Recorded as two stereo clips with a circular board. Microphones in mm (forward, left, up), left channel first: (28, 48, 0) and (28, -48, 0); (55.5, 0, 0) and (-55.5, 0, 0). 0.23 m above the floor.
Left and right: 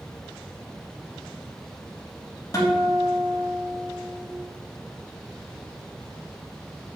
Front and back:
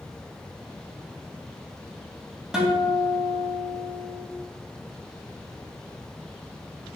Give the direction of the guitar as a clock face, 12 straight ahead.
9 o'clock.